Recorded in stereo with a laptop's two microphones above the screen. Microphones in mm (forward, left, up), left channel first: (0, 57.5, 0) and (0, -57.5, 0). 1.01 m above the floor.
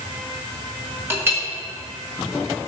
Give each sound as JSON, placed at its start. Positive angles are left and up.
{"t": 1.1, "sound": "a clink", "side_deg": -20, "distance_m": 1.0}